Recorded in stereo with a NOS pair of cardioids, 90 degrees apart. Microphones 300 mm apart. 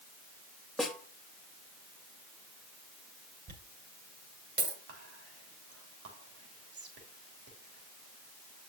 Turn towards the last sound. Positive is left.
turn(degrees=-55)